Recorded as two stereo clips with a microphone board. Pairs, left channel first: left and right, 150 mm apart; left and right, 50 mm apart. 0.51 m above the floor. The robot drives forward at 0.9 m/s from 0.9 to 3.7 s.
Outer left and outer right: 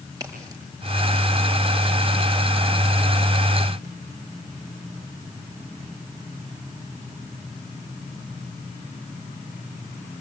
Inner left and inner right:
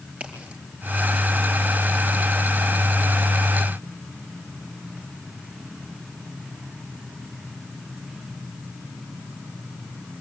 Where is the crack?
25° right (ahead or behind), 7.5 m.